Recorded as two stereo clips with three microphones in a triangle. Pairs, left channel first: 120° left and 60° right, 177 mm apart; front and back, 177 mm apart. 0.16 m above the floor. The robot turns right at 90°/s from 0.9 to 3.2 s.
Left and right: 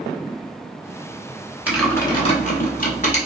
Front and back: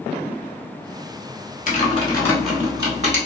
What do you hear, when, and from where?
1.7 s typing on a keyboard: 20° left, 0.9 m; by 3.2 s 155° left, 0.9 m